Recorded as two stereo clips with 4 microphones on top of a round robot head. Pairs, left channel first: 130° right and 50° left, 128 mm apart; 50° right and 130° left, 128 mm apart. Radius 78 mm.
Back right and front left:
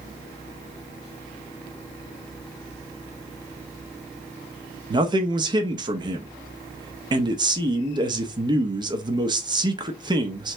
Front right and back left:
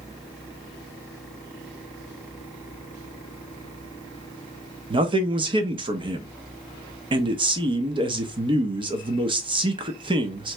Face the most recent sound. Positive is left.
turn(degrees=95)